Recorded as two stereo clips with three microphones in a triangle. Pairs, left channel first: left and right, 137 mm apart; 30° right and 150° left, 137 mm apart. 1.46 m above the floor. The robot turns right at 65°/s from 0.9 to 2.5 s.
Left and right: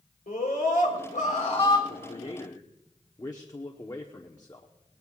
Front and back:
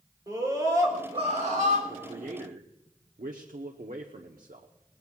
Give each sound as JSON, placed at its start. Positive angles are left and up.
{"t": 0.3, "sound": "a scream", "azimuth_deg": 85, "distance_m": 4.0}
{"t": 1.9, "sound": "a man speaking", "azimuth_deg": 110, "distance_m": 1.0}